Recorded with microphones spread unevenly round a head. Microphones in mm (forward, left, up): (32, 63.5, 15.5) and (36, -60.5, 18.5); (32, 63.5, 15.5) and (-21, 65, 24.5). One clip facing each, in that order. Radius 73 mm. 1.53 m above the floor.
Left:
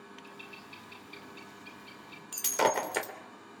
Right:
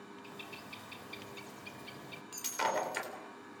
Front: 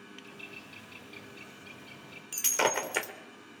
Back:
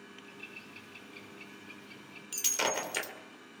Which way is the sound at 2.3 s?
60° left.